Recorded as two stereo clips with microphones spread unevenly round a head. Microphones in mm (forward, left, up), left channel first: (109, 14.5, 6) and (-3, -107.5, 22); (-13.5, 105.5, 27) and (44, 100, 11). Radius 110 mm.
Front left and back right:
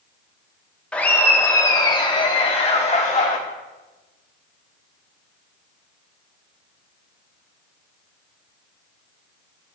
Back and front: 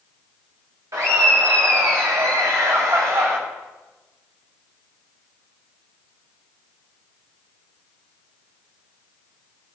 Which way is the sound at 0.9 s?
35° right.